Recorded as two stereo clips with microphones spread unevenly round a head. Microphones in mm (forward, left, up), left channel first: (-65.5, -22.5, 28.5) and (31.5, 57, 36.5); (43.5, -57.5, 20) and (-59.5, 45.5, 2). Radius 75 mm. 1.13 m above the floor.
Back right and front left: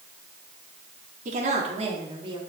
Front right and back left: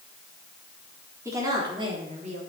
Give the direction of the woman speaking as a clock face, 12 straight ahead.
10 o'clock.